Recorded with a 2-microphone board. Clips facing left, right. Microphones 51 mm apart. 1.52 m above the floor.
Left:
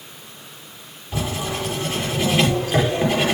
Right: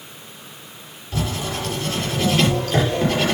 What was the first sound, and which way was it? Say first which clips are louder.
Writing: even; 20° left (ahead or behind).